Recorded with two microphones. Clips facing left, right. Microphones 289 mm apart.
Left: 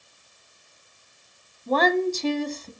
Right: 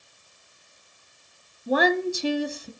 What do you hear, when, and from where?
1.7 s a woman speaking: 10° right (ahead or behind), 1.0 m